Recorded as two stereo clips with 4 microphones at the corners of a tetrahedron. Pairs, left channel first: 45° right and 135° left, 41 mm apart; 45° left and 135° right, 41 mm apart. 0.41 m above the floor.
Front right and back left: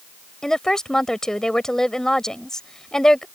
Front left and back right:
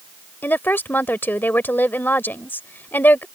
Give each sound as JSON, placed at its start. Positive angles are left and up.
{"t": 0.4, "sound": "a woman speaking", "azimuth_deg": 30}